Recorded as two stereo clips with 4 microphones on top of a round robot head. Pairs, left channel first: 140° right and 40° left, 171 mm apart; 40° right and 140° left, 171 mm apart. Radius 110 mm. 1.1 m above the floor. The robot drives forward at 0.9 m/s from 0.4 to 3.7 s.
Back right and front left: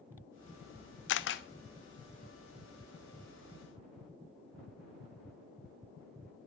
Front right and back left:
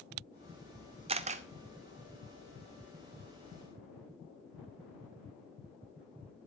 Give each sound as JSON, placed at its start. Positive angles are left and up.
{"t": 1.1, "sound": "a camera shutter", "azimuth_deg": -160, "distance_m": 0.6}